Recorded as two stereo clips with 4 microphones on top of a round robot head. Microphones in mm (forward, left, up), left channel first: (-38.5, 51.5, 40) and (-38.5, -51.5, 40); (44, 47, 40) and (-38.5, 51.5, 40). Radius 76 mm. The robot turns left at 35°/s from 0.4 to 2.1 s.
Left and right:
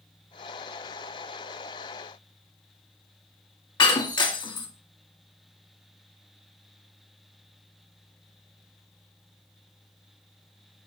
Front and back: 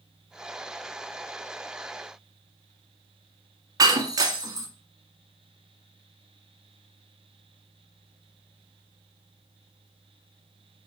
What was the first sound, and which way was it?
Breaking glass, 135° left.